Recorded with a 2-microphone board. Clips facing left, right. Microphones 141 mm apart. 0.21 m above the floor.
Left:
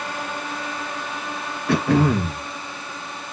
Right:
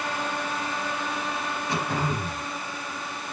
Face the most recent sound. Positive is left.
turn(degrees=75)  # may be behind; listen again after turning